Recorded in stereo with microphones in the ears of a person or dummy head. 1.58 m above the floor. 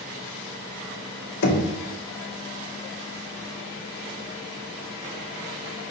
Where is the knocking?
60° left (ahead or behind), 0.7 m.